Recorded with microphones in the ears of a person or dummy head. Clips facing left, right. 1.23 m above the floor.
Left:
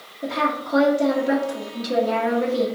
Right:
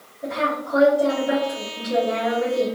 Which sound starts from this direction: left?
A woman speaking, at 0.2 s.